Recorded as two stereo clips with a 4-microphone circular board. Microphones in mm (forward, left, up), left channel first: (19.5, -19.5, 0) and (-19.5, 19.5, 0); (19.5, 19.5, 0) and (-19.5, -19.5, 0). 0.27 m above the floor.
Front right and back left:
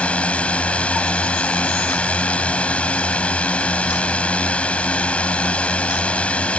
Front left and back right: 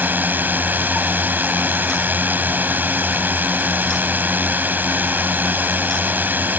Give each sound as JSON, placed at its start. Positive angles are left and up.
{"t": 0.0, "sound": "a drone", "azimuth_deg": -100}